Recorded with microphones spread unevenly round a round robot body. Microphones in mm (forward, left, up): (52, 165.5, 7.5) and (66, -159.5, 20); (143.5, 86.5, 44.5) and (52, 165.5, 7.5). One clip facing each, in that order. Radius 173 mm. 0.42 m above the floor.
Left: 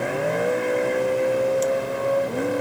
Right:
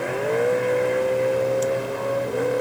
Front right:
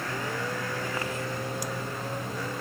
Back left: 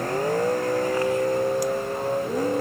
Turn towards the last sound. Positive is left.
turn(degrees=95)